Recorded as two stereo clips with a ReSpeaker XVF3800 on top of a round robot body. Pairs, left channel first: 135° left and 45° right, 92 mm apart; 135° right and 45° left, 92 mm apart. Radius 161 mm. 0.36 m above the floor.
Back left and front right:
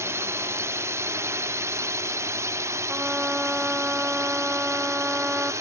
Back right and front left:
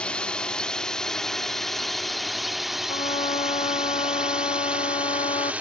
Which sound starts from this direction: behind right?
A trumpet, at 2.9 s.